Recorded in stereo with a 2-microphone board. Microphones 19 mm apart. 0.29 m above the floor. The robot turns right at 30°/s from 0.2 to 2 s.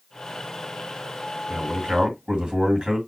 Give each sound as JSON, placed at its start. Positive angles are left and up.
{"t": 1.5, "sound": "a man speaking", "side_deg": -55, "distance_m": 2.5}